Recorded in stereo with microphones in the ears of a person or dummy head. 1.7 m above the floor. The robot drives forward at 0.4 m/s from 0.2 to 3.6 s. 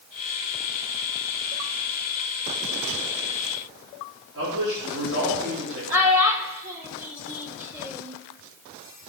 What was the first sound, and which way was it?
A man speaking, 75° right (ahead or behind).